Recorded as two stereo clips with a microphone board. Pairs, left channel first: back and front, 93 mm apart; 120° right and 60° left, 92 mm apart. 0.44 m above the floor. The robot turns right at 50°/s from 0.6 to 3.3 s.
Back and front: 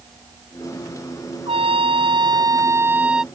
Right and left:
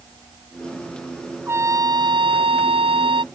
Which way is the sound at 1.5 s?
5° right.